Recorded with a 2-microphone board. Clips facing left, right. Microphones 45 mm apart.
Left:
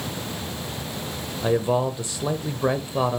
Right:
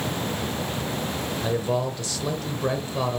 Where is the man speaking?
15° left (ahead or behind), 0.9 m.